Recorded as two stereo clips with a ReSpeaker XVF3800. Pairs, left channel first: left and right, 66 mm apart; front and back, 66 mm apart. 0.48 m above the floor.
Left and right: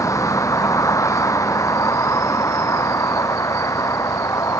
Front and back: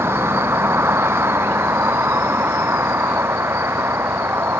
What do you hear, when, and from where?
0.0 s a vehicle: 130° left